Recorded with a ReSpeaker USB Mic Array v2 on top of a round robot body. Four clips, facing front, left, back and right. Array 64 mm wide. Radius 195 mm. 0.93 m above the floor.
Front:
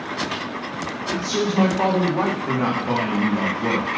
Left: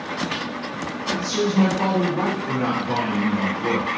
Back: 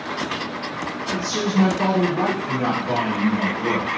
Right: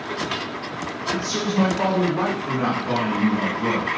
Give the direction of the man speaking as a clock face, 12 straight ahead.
1 o'clock.